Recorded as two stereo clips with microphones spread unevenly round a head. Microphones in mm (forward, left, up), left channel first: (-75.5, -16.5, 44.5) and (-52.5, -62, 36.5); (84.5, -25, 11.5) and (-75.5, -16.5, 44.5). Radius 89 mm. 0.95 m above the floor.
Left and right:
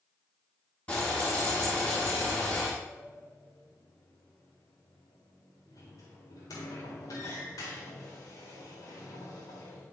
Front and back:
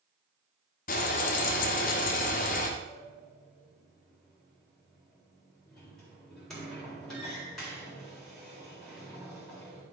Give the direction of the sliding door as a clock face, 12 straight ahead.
9 o'clock.